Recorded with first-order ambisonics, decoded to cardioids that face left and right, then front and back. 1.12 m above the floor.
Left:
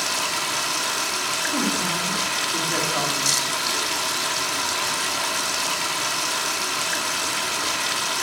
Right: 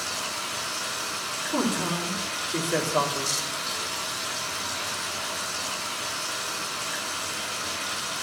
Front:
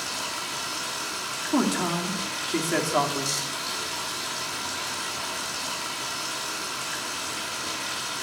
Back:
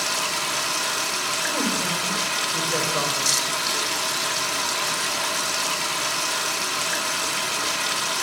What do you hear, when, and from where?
0.0 s running water: 125° left, 0.9 m
1.5 s a man speaking: 10° left, 3.5 m